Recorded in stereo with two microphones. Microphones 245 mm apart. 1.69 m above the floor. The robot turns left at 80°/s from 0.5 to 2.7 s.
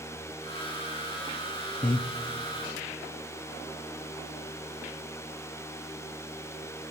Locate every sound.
1.8 s breathing: 30° left (ahead or behind), 0.6 m; by 2.1 s 40° left (ahead or behind), 0.6 m